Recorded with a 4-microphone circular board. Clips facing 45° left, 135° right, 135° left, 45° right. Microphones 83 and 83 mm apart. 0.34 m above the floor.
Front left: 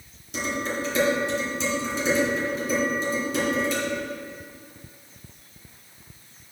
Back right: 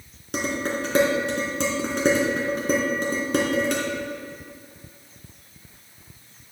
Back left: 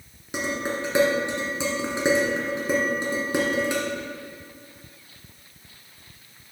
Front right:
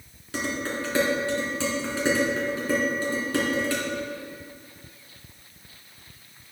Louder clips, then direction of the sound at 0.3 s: Back right 2 dB, back left 2 dB; 155° right.